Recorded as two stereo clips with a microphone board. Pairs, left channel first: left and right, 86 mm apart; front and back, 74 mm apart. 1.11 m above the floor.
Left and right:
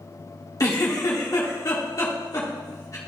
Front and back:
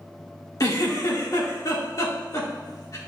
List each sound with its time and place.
0.6 s a giggle: 40° left, 1.9 m